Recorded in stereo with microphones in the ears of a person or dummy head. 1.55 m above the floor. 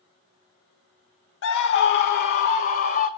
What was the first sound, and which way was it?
A scream, 60° left (ahead or behind).